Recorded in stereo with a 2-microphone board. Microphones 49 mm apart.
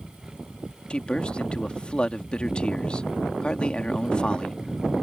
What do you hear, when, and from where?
0.9 s a man speaking: 20° left (ahead or behind)